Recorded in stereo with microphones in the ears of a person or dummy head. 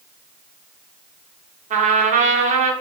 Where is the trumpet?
35° right (ahead or behind), 0.6 m.